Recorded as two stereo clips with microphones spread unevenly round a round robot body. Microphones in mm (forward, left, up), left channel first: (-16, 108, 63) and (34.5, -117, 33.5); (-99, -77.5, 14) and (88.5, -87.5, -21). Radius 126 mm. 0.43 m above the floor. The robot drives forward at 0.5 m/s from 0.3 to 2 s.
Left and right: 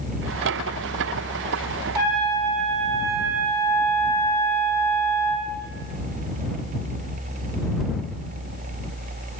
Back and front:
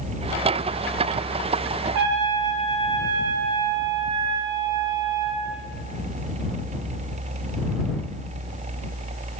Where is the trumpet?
5° left, 0.5 m.